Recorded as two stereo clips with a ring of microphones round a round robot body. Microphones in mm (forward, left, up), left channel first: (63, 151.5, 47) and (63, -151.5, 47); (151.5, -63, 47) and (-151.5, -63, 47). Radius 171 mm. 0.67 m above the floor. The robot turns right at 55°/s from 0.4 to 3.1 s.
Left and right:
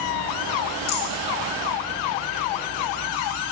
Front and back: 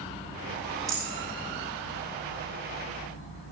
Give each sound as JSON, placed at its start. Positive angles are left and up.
{"t": 0.9, "sound": "a rattle", "azimuth_deg": 100, "distance_m": 7.0}